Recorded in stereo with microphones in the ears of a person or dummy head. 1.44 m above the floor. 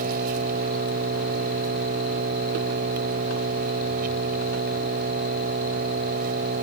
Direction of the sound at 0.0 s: 50° right (ahead or behind).